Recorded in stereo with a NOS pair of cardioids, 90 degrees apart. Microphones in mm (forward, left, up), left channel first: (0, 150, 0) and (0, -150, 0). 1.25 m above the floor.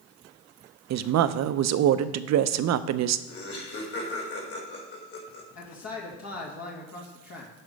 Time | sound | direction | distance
0.9 | a woman speaking | 65° right | 0.6 m
3.3 | laughter | 50° left | 4 m
5.5 | a man speaking | 60° left | 2 m